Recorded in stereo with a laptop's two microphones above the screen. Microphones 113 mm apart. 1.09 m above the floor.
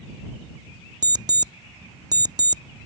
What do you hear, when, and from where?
1.0 s an alarm clock: 35° right (ahead or behind)